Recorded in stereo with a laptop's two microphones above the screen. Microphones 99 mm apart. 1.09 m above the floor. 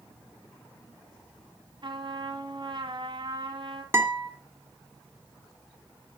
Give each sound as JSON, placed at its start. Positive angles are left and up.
{"t": 1.8, "sound": "a trumpet", "side_deg": -50, "distance_m": 1.4}
{"t": 3.9, "sound": "a guitar", "side_deg": -25, "distance_m": 1.9}